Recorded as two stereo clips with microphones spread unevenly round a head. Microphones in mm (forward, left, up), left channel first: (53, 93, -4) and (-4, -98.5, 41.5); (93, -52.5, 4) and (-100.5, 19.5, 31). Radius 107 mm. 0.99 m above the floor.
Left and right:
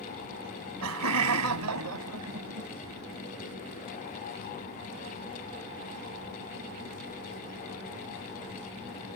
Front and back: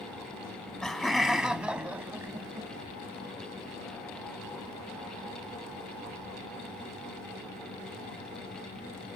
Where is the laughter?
105° right; by 2.7 s 125° right.